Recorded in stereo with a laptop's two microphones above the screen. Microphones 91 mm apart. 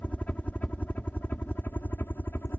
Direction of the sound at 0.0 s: 15° left (ahead or behind).